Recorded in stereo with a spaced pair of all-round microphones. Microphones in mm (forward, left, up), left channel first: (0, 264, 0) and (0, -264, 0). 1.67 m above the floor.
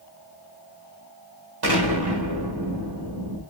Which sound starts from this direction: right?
An explosion, at 1.6 s.